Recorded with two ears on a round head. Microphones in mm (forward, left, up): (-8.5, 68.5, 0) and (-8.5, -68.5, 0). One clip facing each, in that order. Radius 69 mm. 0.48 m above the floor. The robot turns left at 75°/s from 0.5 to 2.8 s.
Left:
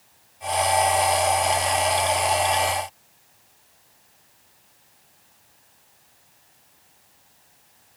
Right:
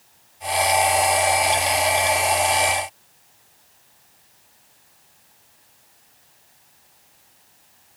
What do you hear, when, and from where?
Only background noise.